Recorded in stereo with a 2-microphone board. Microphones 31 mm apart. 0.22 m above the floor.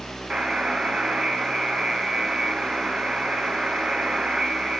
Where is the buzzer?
25° right (ahead or behind), 0.6 m.